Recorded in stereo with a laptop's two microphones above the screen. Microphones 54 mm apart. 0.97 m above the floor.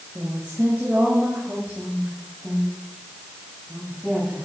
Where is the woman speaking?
30° right (ahead or behind), 6 m; by 4.5 s 15° right (ahead or behind), 8.5 m.